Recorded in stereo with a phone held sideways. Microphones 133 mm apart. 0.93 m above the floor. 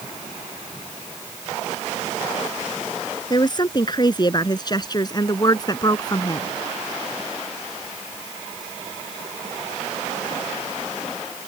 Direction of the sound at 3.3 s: 35° left (ahead or behind).